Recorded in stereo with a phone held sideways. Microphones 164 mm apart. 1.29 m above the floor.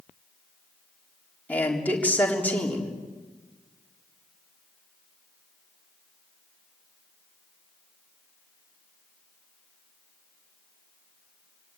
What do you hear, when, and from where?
1.5 s a man speaking: 10° left (ahead or behind), 4 m